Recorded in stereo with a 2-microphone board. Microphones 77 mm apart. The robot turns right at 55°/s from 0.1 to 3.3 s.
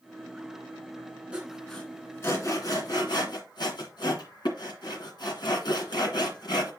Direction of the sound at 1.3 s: 15° right (ahead or behind).